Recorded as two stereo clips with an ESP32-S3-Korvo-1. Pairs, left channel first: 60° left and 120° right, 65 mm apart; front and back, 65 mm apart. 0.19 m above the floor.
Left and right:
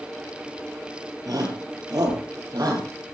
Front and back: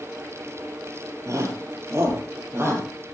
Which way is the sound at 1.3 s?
140° right.